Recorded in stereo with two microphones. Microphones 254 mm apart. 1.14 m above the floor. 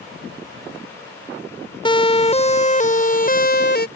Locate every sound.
1.9 s a siren: 20° left (ahead or behind); by 3.9 s 45° left (ahead or behind)